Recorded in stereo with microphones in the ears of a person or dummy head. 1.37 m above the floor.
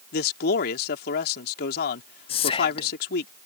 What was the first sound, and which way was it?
A man speaking, 60° left (ahead or behind).